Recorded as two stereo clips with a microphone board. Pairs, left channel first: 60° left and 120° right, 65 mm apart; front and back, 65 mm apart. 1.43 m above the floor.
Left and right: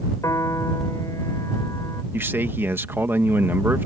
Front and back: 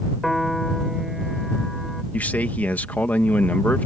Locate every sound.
0.2 s a piano: 90° left
2.1 s a man speaking: 65° right